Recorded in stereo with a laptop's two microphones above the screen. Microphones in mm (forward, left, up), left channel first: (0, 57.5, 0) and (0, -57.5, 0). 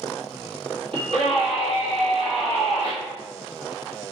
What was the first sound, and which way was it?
A scream, 55° right (ahead or behind).